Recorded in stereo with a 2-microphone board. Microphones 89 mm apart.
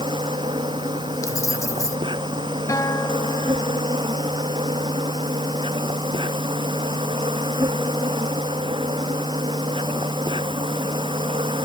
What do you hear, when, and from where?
0.0 s an insect: 70° right (ahead or behind)
1.2 s keys jangling: 35° left (ahead or behind)
2.7 s a guitar: 40° left (ahead or behind)